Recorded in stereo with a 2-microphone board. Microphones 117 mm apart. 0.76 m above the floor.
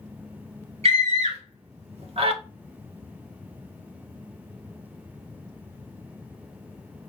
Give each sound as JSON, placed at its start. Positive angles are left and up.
{"t": 0.8, "sound": "a scream", "side_deg": -70, "distance_m": 2.5}